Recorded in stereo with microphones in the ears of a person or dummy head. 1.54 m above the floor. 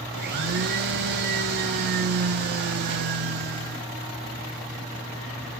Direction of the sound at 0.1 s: 50° right (ahead or behind).